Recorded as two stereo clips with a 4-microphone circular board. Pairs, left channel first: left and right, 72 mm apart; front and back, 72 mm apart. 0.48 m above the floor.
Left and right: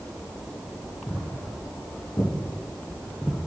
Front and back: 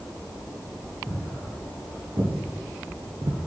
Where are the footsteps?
135° left, 4 m; by 3.4 s 170° right, 0.9 m.